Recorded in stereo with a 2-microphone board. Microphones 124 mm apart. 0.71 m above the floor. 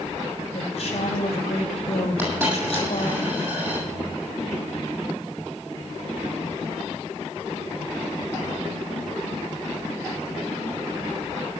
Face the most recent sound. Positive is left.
turn(degrees=-20)  # may be behind; listen again after turning